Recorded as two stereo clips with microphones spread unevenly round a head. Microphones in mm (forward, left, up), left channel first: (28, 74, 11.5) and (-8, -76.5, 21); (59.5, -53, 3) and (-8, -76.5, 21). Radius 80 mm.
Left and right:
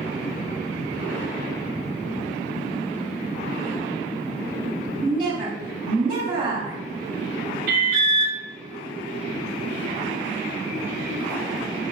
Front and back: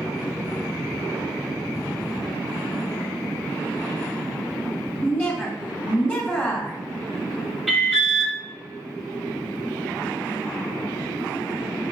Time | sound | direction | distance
5.0 | a woman speaking | 40° right | 1.9 m
7.7 | an alarm | 75° right | 0.9 m